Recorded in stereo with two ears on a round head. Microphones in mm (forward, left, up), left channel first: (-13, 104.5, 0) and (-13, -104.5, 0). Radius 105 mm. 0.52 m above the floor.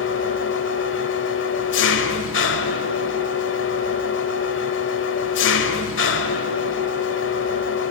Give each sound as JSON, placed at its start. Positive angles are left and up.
{"t": 0.0, "sound": "an engine running", "side_deg": 55, "distance_m": 1.4}